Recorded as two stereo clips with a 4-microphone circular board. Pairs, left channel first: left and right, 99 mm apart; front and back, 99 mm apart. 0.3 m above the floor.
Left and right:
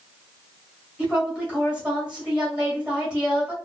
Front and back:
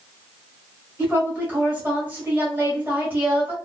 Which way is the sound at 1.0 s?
150° right.